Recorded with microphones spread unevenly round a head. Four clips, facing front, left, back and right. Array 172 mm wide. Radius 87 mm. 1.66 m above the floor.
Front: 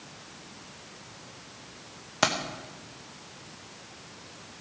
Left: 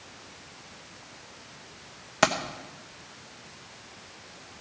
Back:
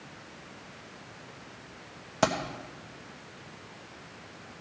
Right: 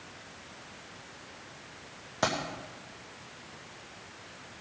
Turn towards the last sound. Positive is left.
turn(degrees=75)